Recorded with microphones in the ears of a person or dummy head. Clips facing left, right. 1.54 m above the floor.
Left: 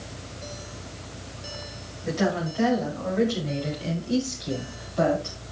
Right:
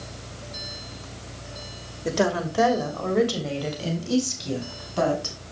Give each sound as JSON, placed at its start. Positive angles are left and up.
{"t": 2.0, "sound": "a woman speaking", "side_deg": -70, "distance_m": 3.0}